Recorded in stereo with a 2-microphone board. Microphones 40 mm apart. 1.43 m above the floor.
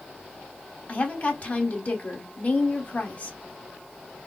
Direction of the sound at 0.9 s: 40° left (ahead or behind).